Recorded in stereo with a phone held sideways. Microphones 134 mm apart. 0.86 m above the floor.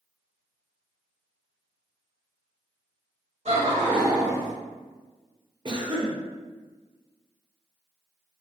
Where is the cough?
35° right (ahead or behind), 0.5 m.